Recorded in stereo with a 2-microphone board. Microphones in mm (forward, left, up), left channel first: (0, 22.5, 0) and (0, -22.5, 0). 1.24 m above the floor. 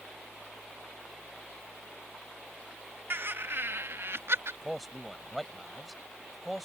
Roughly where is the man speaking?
Centre.